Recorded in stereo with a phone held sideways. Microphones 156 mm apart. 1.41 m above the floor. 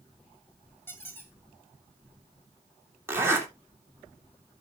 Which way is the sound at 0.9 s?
15° left (ahead or behind).